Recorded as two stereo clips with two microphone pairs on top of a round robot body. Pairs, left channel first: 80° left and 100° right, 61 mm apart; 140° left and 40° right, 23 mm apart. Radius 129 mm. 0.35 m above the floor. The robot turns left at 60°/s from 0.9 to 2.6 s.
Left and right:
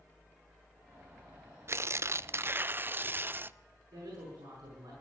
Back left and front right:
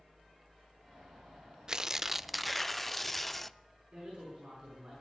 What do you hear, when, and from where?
1.7 s tearing paper: 80° right, 0.5 m; by 3.6 s 135° right, 0.5 m
3.9 s a man speaking: 95° right, 6.5 m